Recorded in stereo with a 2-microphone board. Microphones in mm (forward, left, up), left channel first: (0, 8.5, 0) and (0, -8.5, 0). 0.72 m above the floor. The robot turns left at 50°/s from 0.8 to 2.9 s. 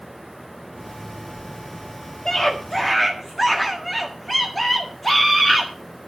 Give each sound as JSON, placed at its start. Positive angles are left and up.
{"t": 2.2, "sound": "a scream", "azimuth_deg": 45, "distance_m": 1.6}